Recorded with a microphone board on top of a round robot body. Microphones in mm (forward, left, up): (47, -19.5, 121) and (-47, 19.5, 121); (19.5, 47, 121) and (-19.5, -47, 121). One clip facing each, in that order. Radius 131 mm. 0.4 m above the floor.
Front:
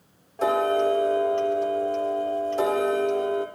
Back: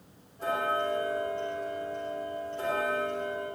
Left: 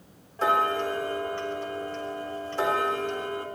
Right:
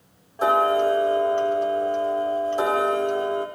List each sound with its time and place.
0.4 s ticking: 40° right, 3.5 m